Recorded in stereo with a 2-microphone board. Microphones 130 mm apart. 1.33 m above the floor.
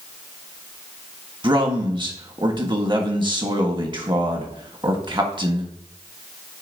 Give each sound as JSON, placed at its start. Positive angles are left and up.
{"t": 1.4, "sound": "a man speaking", "side_deg": -35, "distance_m": 1.4}